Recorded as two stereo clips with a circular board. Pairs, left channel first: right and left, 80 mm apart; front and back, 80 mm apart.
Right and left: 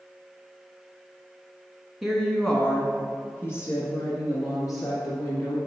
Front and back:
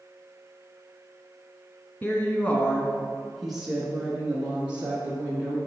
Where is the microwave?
I don't hear a microwave.